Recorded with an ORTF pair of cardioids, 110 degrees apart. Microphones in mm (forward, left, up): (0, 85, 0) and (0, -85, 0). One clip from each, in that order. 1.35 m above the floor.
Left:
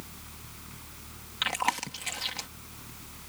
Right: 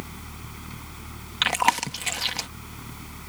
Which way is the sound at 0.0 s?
50° right.